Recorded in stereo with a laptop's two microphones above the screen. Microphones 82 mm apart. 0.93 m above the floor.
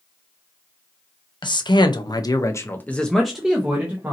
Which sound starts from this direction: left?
A man speaking, at 1.4 s.